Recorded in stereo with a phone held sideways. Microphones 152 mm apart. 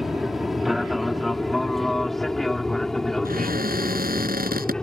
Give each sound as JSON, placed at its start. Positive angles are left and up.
{"t": 0.0, "sound": "an aircraft", "side_deg": 0}
{"t": 3.2, "sound": "a cupboard door", "side_deg": -75}